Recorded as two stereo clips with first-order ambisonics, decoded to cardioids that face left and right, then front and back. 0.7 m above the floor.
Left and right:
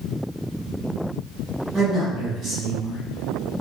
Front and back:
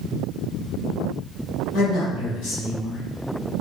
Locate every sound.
1.7 s a man speaking: 20° right, 0.9 m